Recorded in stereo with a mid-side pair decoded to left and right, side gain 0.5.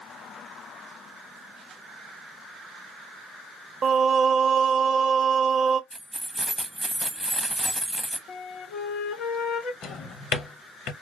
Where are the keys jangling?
5° right, 0.6 m.